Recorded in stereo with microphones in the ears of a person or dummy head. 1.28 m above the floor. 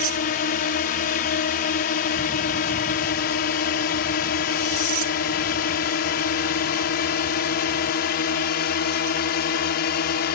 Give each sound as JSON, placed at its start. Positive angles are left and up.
{"t": 0.0, "sound": "a drone", "side_deg": 45}